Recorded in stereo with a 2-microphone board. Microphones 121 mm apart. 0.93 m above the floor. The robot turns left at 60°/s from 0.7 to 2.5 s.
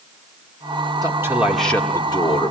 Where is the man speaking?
145° right, 1.9 m; by 2.5 s 125° left, 1.9 m.